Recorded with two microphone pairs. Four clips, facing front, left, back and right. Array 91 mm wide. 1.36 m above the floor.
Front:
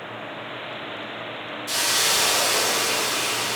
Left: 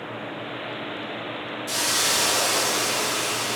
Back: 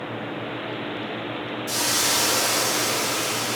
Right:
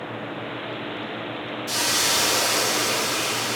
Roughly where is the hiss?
Ahead.